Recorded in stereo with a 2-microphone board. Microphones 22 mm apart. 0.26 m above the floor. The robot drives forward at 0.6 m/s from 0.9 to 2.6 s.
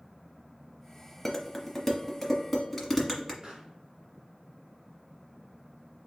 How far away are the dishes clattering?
About 0.7 m.